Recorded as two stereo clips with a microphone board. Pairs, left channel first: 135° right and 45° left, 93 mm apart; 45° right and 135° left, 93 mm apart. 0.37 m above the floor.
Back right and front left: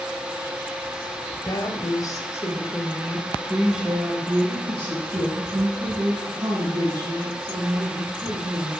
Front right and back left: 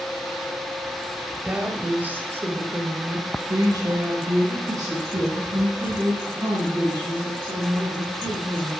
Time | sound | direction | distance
1.4 | a woman speaking | 150° right | 1.7 m